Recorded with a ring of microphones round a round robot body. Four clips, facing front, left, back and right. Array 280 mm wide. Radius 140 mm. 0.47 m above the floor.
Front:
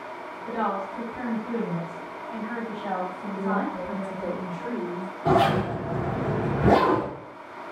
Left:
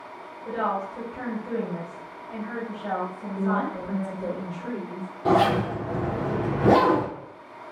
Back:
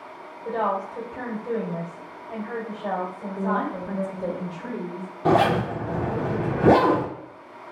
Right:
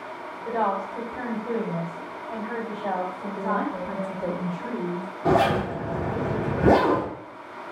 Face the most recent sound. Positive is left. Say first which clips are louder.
# even, back 1 dB
turn(degrees=-170)